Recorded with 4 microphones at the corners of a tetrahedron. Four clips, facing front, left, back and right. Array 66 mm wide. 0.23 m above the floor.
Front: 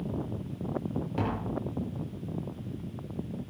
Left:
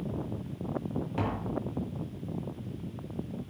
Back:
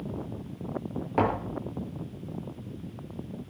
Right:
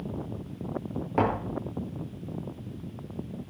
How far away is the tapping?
About 3 m.